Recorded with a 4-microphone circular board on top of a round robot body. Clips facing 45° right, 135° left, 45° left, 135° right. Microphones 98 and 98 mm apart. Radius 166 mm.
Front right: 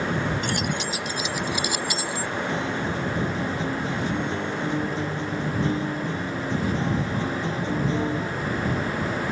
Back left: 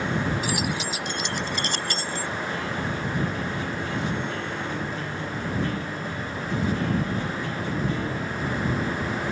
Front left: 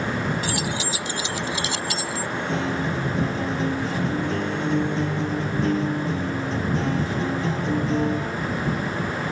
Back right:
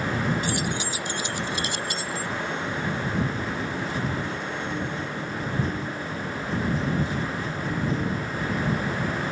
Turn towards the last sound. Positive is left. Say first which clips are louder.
# front right 2 dB, front left 4 dB
turn(degrees=25)